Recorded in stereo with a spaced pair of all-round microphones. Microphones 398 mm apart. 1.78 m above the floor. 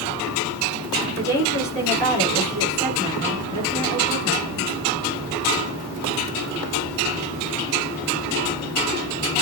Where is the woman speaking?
35° right (ahead or behind), 6 m.